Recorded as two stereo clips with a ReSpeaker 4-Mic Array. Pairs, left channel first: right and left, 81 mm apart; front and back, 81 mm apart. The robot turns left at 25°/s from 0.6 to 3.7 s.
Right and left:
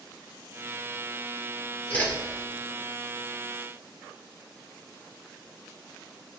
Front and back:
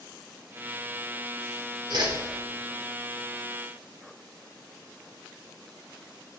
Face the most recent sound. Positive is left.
turn(degrees=155)